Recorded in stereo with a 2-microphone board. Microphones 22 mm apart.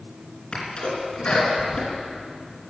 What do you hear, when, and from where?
0.5 s a sneeze: 50° left (ahead or behind), 3 m